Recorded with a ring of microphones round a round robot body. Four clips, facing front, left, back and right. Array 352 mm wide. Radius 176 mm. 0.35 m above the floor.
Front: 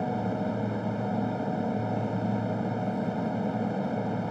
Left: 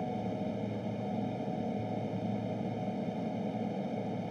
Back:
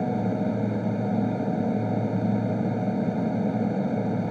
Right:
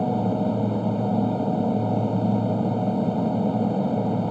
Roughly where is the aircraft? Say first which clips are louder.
Right 12 dB, back 3 dB; behind right.